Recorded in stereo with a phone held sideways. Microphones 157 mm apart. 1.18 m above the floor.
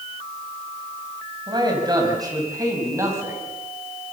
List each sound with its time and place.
1.5 s a man speaking: 30° right (ahead or behind), 6 m; by 3.4 s 15° right (ahead or behind), 6.5 m